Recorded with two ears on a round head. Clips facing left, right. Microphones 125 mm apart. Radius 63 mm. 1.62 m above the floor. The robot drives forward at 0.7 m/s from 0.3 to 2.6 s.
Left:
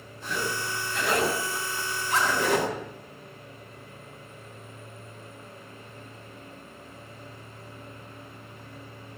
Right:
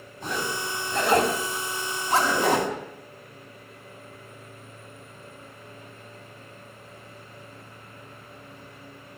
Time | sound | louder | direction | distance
0.2 | a zipper | right 1 dB | 40° right (ahead or behind) | 6.5 m